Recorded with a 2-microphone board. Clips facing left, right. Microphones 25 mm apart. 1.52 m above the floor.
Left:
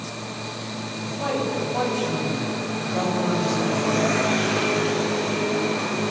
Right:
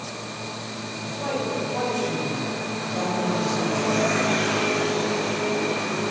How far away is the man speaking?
About 9.5 m.